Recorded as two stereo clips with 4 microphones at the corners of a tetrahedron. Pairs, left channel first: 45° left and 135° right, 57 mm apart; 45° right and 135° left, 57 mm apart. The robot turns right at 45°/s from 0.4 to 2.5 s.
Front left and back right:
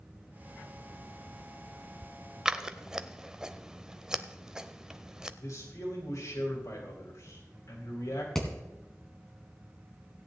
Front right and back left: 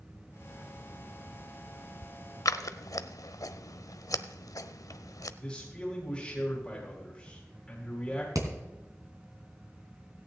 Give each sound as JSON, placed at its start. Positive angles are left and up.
{"t": 2.5, "sound": "scissors", "azimuth_deg": -60, "distance_m": 0.6}
{"t": 5.4, "sound": "a man speaking", "azimuth_deg": 40, "distance_m": 3.0}
{"t": 8.3, "sound": "hammering", "azimuth_deg": 125, "distance_m": 2.5}